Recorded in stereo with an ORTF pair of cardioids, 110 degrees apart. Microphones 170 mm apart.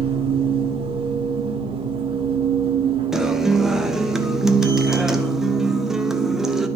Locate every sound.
0.0 s a machine running: 35° right, 1.6 m
3.1 s a guitar: straight ahead, 0.6 m